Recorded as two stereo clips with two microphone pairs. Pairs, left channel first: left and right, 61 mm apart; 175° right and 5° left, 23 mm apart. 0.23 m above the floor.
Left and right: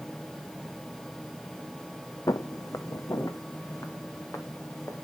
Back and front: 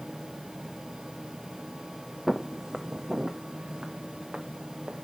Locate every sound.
2.3 s footsteps: 85° left, 0.6 m; by 5.0 s 55° left, 2.0 m